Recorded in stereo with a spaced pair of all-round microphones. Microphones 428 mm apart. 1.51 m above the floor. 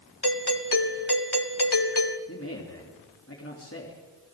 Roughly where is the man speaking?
Left.